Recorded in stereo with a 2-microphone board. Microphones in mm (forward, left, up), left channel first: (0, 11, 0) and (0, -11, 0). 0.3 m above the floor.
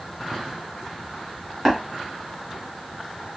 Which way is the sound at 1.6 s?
15° right (ahead or behind).